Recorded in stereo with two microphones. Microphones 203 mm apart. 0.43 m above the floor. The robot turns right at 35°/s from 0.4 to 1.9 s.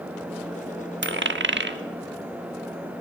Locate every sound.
1.0 s a dropped coin: 65° right (ahead or behind), 0.6 m; by 1.8 s 60° right (ahead or behind), 0.6 m